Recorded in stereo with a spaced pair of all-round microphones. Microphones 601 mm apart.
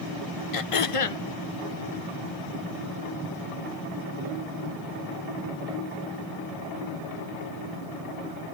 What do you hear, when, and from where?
0.5 s throat clearing: 65° left (ahead or behind), 0.7 m